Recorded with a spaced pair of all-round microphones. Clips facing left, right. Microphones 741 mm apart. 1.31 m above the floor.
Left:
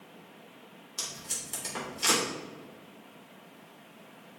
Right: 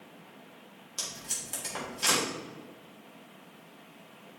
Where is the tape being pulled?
20° right (ahead or behind), 3.5 m.